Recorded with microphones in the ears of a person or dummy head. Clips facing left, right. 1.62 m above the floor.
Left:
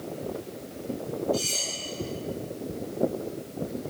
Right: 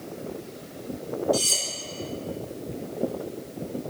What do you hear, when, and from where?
1.3 s cutlery clinking: 75° right (ahead or behind), 2.5 m